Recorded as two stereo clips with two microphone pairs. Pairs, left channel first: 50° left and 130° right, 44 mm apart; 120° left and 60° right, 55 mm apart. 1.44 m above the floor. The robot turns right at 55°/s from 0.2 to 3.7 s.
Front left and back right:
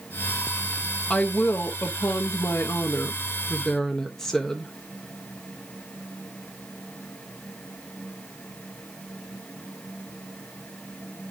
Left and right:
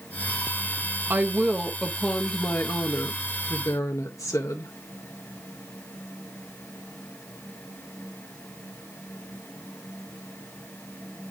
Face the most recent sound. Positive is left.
turn(degrees=130)